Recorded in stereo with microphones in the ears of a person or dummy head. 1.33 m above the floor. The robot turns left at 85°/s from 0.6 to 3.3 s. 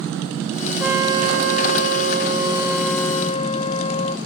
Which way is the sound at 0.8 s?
Straight ahead.